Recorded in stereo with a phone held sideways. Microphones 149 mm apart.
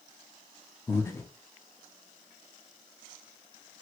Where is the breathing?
20° left (ahead or behind), 0.6 m.